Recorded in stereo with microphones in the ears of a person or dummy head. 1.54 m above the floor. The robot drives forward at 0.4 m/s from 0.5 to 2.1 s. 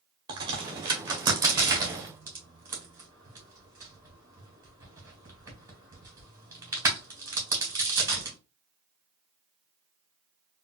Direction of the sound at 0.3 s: 30° right (ahead or behind).